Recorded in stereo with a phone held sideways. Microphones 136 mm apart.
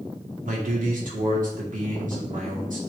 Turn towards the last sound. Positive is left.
turn(degrees=-70)  # may be behind; listen again after turning